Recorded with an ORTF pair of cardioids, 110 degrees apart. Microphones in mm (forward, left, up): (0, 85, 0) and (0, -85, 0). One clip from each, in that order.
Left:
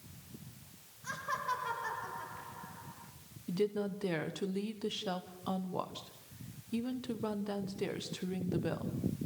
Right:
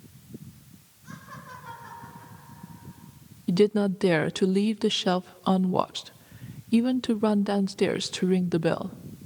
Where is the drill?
No drill in this recording.